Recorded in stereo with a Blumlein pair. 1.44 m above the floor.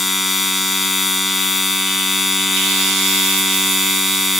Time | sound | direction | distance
0.0 | a machine running | straight ahead | ?